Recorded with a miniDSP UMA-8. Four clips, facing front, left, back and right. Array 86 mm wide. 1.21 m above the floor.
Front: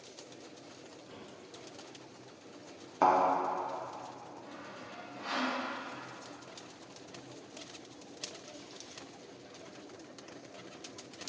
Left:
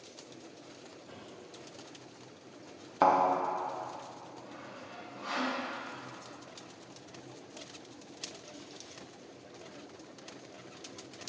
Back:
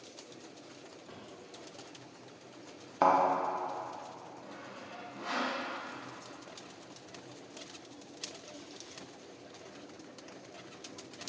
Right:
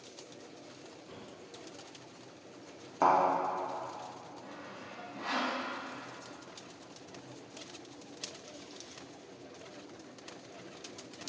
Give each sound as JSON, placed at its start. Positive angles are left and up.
{"t": 1.1, "sound": "a drawer", "azimuth_deg": -170, "distance_m": 1.2}
{"t": 3.0, "sound": "a thud", "azimuth_deg": 110, "distance_m": 0.7}
{"t": 4.4, "sound": "sawing", "azimuth_deg": -100, "distance_m": 1.3}